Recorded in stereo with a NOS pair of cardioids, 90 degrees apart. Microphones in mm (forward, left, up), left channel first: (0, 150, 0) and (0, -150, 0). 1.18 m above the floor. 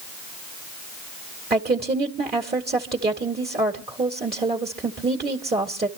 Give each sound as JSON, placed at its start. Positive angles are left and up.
{"t": 1.5, "sound": "a woman speaking", "azimuth_deg": -30, "distance_m": 2.0}